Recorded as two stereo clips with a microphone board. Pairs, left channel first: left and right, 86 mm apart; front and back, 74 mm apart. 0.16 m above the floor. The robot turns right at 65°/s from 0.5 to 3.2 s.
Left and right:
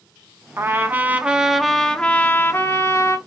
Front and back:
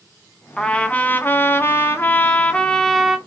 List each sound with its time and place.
0.6 s a trumpet: 70° right, 0.5 m; by 3.2 s 100° left, 0.5 m